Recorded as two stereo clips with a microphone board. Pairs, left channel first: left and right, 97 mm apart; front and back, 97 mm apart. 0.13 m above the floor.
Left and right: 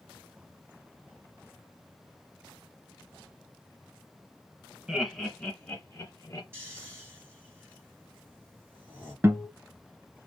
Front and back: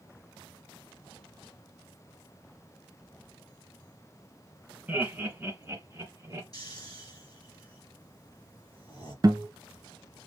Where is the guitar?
150° right, 0.9 m.